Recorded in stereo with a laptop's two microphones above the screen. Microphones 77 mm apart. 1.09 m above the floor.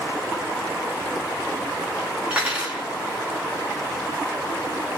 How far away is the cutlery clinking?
About 1.1 m.